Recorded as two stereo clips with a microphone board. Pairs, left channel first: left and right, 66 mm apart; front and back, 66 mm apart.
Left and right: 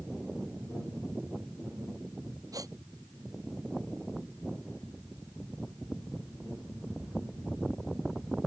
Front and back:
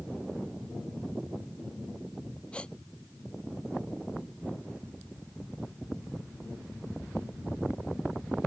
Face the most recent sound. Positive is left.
turn(degrees=-75)